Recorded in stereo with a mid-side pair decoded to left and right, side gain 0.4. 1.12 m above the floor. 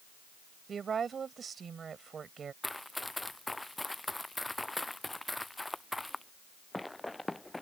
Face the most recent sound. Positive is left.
turn(degrees=15)